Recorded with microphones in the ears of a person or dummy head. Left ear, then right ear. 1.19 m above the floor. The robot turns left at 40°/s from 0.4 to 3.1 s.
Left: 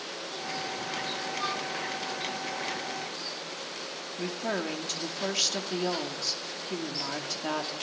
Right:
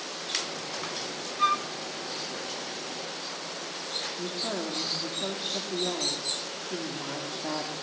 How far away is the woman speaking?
About 2.5 m.